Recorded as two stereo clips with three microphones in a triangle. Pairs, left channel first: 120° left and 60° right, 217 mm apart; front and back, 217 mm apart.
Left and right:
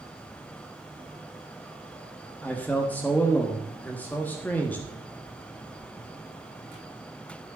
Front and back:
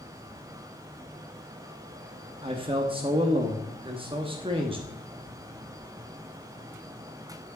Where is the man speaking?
170° right, 1.1 m.